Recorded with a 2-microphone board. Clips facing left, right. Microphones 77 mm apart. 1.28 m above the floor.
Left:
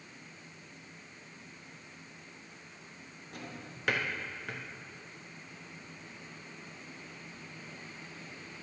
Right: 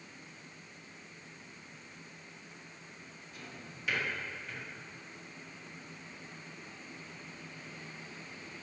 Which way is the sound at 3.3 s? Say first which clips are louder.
Left 4 dB; 65° left (ahead or behind).